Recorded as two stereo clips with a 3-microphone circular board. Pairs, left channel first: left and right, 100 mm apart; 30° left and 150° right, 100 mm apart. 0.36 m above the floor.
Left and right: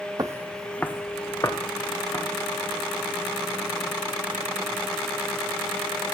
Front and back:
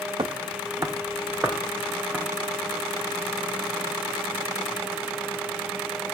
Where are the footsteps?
130° right, 0.6 m; by 2.2 s 135° left, 2 m.